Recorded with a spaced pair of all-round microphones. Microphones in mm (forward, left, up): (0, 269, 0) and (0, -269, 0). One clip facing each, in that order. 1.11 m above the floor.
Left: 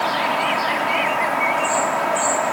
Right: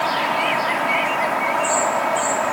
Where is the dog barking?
I don't hear a dog barking.